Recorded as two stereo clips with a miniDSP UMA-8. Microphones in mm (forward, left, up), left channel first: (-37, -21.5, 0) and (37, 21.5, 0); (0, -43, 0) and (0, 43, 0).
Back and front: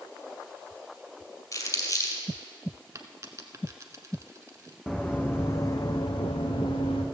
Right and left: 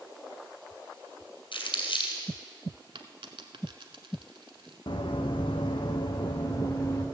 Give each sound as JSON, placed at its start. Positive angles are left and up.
{"t": 1.5, "sound": "crumpling", "azimuth_deg": -100, "distance_m": 2.5}
{"t": 3.0, "sound": "a dropped coin", "azimuth_deg": 80, "distance_m": 0.9}
{"t": 4.9, "sound": "running footsteps", "azimuth_deg": -65, "distance_m": 1.1}